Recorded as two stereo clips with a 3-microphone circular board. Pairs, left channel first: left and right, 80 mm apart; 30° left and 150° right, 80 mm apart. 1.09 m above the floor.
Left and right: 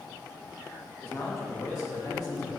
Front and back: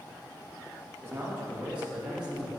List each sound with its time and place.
1.0 s a man speaking: 155° left, 1.7 m; by 2.6 s 130° left, 2.5 m